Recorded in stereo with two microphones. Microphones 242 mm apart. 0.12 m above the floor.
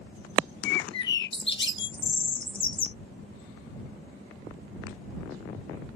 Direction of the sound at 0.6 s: 50° left (ahead or behind).